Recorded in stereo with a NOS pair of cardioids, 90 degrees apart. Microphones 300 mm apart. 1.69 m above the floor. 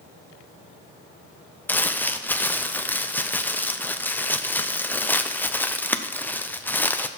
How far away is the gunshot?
I don't hear a gunshot.